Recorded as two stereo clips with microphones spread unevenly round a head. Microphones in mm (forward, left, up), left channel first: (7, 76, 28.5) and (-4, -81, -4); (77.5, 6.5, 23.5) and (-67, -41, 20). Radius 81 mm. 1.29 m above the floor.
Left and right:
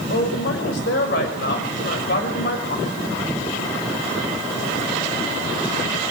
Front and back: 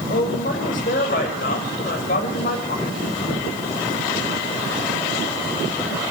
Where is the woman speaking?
60° left, 5 m.